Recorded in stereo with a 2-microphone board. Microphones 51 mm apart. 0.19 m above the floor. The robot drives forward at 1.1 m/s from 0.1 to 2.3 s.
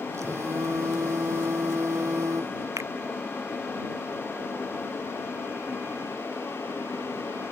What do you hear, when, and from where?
0.2 s a phone buzzing: 75° right (ahead or behind)
2.8 s a finger snap: 85° right